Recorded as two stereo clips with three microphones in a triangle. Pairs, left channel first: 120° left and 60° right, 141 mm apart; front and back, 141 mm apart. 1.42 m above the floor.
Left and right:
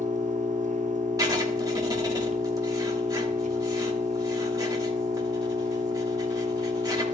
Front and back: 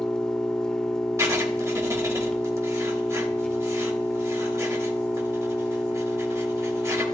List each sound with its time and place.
0.0 s an engine running: 85° right, 0.9 m
1.2 s writing: 120° right, 1.3 m